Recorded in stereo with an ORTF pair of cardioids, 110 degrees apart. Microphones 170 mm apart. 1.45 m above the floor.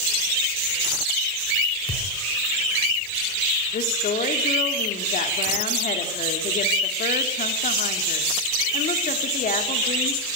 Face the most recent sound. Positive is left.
turn(degrees=50)